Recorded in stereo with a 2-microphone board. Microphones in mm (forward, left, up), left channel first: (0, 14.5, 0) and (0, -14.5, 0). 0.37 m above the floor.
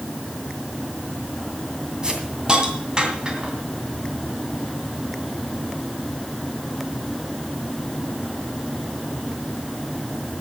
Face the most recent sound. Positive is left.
turn(degrees=-25)  # may be behind; listen again after turning